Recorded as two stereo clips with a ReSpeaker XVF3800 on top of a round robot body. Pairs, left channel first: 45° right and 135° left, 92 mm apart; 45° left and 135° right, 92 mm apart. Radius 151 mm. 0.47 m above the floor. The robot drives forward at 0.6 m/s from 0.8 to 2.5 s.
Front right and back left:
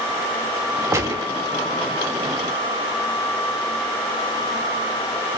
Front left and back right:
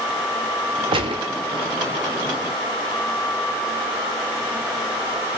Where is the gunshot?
165° right, 0.5 m; by 1.3 s 170° right, 0.8 m.